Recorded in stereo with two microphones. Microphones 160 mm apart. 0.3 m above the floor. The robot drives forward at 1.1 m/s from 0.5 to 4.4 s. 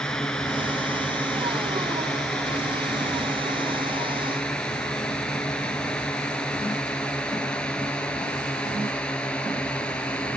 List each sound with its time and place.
0.0 s a drone: 5° left (ahead or behind)